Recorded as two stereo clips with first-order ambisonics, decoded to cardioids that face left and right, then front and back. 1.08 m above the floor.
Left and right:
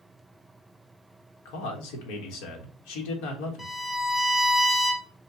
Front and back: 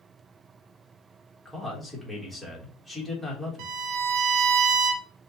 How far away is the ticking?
No ticking in this recording.